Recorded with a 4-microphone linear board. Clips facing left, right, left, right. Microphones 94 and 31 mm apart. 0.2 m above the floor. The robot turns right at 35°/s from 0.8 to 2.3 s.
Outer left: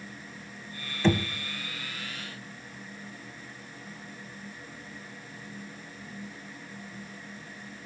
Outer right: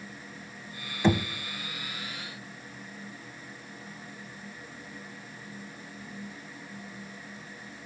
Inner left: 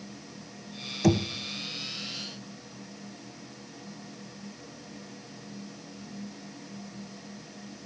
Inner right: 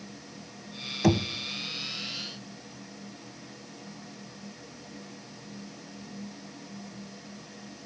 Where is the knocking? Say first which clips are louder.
Even, even; 15° right (ahead or behind), 0.8 m.